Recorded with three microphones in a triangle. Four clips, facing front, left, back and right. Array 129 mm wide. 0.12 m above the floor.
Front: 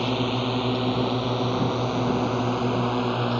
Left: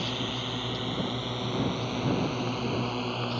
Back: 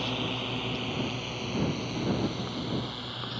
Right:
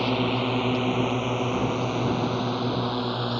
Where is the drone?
55° right; by 3.4 s 15° right.